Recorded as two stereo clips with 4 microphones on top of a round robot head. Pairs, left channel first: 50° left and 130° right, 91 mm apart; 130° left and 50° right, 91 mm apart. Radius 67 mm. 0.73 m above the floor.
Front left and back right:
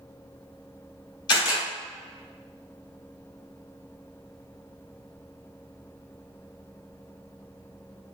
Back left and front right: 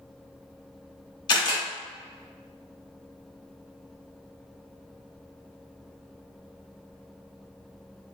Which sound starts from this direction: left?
A camera shutter, at 1.3 s.